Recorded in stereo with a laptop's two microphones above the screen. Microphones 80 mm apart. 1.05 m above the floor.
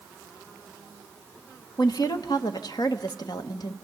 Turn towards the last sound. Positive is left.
turn(degrees=60)  # may be behind; listen again after turning